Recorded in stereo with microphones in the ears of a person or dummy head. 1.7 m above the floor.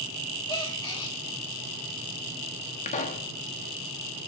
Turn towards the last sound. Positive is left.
turn(degrees=40)  # may be behind; listen again after turning